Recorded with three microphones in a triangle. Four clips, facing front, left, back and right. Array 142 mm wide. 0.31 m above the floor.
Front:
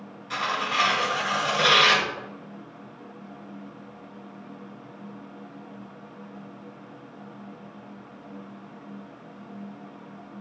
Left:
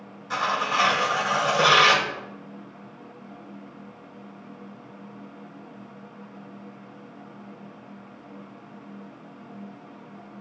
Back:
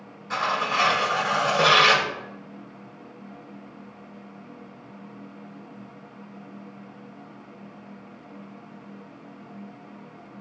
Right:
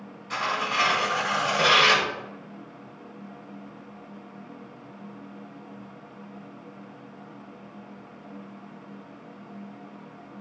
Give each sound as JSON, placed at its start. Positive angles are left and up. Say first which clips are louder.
{"t": 0.3, "sound": "tearing paper", "louder": "left 3 dB, back 3 dB", "azimuth_deg": 135, "distance_m": 1.4}